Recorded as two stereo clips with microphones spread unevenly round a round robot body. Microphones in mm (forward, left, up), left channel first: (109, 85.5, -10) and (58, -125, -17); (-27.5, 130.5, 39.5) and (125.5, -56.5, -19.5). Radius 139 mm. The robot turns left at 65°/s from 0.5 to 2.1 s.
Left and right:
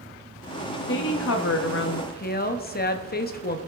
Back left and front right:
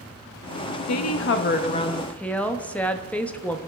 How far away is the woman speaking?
About 1.0 m.